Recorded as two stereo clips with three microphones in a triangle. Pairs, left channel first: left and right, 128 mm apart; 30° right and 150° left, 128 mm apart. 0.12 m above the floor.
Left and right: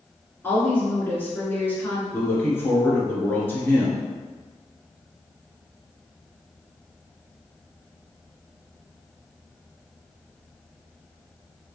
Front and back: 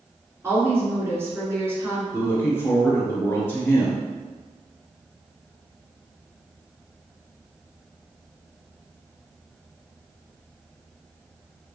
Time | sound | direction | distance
0.4 | a woman speaking | 130° left | 1.4 m
2.1 | a woman speaking | 30° left | 1.3 m